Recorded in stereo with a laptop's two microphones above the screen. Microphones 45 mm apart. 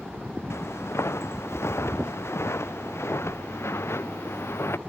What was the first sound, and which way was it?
Footsteps, 75° left (ahead or behind).